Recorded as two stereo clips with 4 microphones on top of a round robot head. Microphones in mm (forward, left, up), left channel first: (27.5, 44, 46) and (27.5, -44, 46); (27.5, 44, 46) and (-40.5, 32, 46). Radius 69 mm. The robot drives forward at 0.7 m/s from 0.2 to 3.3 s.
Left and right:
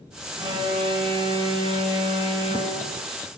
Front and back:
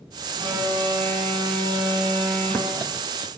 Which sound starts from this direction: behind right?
An alarm, at 0.4 s.